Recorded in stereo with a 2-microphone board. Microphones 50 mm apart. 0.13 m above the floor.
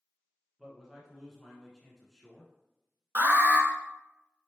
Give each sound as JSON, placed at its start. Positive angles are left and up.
{"t": 0.6, "sound": "a man speaking", "side_deg": 0, "distance_m": 1.2}
{"t": 3.1, "sound": "an alarm", "side_deg": -35, "distance_m": 1.0}